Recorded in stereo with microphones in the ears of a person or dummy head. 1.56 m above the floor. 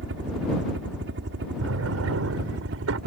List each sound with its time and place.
0.0 s a helicopter: 60° right (ahead or behind); by 3.1 s 55° right (ahead or behind)
1.6 s a drawer: 75° right (ahead or behind)